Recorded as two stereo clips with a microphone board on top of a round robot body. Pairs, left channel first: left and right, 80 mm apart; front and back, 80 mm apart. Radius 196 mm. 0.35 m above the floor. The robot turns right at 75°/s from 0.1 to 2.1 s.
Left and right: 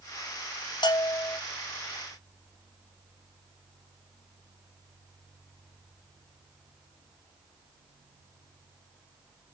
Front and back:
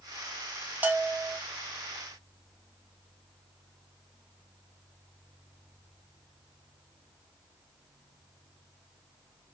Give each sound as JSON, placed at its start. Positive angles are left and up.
{"t": 0.8, "sound": "a bell", "azimuth_deg": 110, "distance_m": 0.7}